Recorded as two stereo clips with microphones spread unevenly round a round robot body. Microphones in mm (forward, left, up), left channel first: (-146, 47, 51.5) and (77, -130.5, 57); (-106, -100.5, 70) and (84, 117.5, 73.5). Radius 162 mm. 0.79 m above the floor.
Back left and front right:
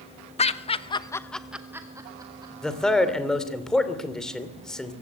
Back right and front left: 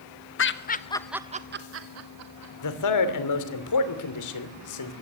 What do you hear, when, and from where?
0.4 s laughter: 160° right, 1.3 m; by 2.5 s 35° left, 2 m
2.6 s a man speaking: 130° right, 2.5 m